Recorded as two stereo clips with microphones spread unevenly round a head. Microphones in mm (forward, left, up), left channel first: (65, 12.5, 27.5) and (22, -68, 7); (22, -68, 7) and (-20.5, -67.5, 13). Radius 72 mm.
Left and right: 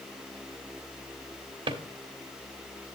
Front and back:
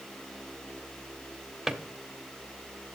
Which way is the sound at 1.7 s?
120° right.